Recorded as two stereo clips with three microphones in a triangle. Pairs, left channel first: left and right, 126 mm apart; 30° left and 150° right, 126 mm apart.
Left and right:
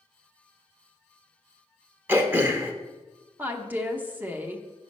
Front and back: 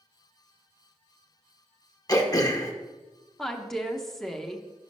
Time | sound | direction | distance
2.1 | throat clearing | 25° right | 0.7 m
3.4 | a woman speaking | 50° right | 0.7 m